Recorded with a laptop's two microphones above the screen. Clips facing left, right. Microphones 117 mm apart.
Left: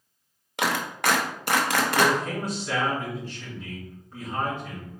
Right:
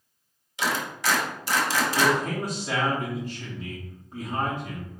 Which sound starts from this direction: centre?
A man speaking, at 1.9 s.